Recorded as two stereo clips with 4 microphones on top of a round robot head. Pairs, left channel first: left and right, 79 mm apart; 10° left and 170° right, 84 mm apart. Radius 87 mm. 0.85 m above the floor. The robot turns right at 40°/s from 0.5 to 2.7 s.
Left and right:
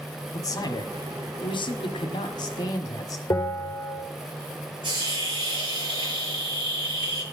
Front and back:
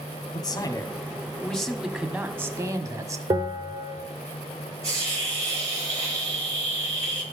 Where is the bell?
145° left, 2.5 m.